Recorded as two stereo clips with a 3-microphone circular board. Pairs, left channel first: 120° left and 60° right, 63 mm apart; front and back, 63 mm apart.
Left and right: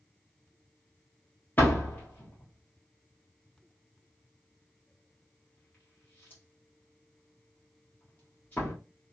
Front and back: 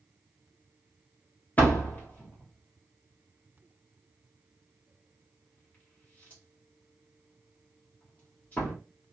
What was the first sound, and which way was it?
A door slam, 60° left.